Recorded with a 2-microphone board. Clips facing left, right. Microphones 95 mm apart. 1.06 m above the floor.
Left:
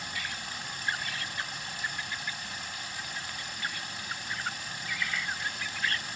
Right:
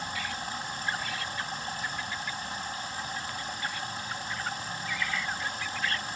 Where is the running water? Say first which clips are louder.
Right 4 dB; 30° right (ahead or behind), 7.5 m.